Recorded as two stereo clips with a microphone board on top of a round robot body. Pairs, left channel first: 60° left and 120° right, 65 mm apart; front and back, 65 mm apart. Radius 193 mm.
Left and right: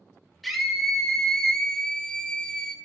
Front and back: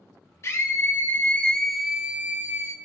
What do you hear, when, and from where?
0.4 s a scream: 30° right, 2.5 m; by 2.8 s 135° left, 2 m